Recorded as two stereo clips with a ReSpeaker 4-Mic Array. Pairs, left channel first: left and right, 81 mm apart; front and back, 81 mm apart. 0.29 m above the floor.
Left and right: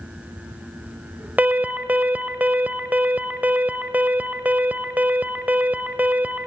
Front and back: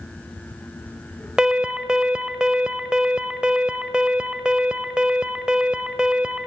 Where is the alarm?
115° right, 1.0 m.